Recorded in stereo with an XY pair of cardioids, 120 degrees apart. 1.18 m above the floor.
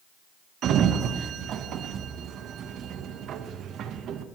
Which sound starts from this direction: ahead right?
A sliding door, at 0.6 s.